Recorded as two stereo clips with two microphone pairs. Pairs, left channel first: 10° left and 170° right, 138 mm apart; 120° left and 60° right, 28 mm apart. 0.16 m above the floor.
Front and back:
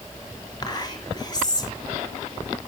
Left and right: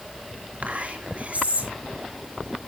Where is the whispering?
45° right, 3 m.